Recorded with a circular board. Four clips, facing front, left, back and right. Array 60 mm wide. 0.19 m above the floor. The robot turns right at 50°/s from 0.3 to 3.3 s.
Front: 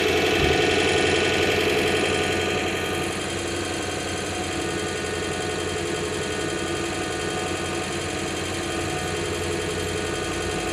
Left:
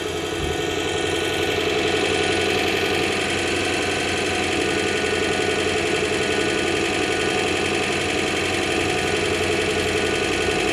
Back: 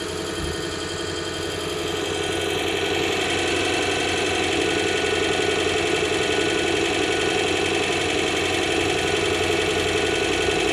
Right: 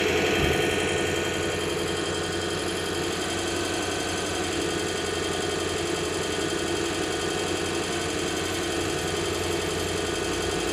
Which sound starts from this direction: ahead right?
An engine running, at 0.0 s.